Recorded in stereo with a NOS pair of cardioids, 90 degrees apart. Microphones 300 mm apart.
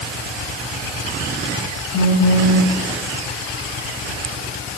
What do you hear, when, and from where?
1.9 s a phone buzzing: 55° left, 3 m